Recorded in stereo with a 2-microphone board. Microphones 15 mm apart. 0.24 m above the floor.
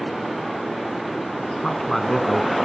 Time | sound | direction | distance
1.5 | a man speaking | 25° left (ahead or behind) | 2.0 m